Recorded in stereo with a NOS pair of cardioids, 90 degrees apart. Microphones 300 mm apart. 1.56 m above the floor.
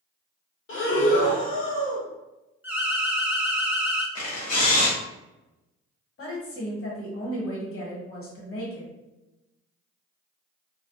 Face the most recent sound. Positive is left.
turn(degrees=45)